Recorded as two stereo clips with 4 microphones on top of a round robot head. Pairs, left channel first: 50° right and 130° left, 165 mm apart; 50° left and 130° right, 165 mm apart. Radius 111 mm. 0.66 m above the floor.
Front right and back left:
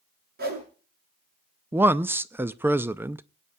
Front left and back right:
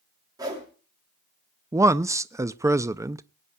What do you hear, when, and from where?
0.4 s a whoosh: 160° left, 7 m
1.7 s a man speaking: 170° right, 0.6 m